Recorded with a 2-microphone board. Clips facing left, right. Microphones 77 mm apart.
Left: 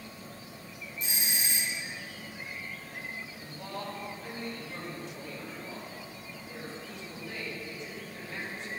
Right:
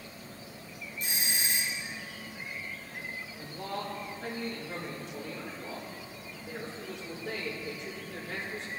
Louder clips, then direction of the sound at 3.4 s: Right 3 dB; 75° right (ahead or behind).